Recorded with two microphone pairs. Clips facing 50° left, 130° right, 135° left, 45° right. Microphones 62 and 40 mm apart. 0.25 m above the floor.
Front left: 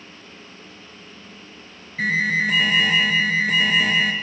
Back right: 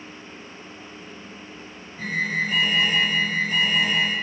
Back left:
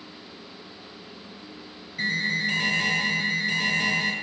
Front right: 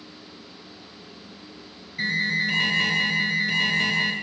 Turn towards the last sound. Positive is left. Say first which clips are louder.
# front left 5 dB, front right 2 dB
turn(degrees=35)